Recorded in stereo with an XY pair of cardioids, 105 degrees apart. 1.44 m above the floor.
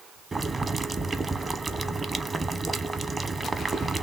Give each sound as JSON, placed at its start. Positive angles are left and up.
{"t": 0.3, "sound": "boiling", "azimuth_deg": -35, "distance_m": 0.9}